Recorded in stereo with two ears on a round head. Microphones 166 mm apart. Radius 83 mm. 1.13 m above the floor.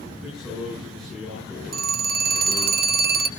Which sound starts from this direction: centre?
A man speaking, at 0.2 s.